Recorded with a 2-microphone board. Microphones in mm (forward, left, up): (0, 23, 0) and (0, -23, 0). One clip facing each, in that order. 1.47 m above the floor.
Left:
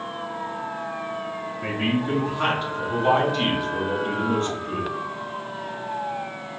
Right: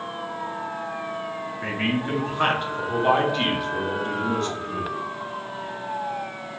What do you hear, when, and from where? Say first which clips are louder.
1.6 s a man speaking: left 1 dB; 50° right (ahead or behind), 1.8 m; by 4.9 s 50° left (ahead or behind), 1.0 m